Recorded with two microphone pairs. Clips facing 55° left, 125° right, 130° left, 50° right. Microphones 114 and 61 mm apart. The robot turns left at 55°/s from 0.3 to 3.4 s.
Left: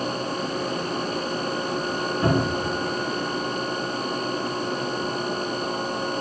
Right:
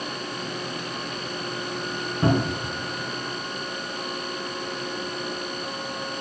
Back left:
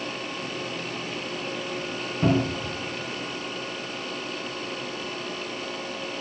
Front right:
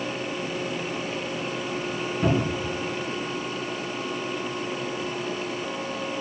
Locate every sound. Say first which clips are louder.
2.2 s a cupboard door: even, back left 2 dB; straight behind, 3.5 m; by 2.7 s 155° left, 3.5 m